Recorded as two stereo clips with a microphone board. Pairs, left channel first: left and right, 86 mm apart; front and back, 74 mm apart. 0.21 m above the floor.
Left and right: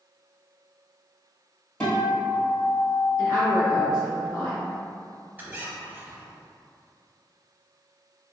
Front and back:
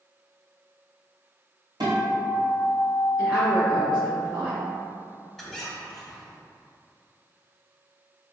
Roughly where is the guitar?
Behind.